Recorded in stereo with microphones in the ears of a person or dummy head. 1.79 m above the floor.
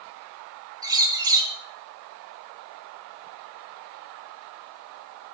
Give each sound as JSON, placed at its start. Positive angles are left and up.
{"t": 0.8, "sound": "a bird", "side_deg": -15, "distance_m": 0.8}